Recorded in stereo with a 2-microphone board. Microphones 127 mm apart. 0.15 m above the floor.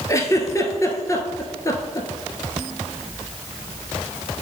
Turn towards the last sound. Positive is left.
turn(degrees=25)  # may be behind; listen again after turning